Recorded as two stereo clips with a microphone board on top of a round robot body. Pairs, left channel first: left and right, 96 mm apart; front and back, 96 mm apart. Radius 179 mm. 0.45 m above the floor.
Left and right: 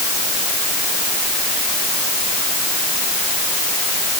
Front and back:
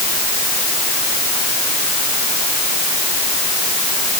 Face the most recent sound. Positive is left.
No sound to turn to.